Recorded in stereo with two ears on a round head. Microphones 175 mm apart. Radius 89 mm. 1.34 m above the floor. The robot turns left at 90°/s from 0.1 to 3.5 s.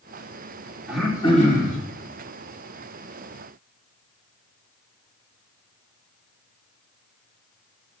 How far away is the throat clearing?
About 4 m.